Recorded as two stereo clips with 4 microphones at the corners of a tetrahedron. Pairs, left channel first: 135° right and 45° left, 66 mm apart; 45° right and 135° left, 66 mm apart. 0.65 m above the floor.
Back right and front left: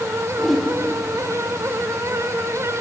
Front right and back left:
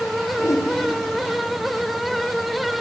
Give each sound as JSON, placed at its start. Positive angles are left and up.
{"t": 0.4, "sound": "a whoosh", "azimuth_deg": -45, "distance_m": 1.9}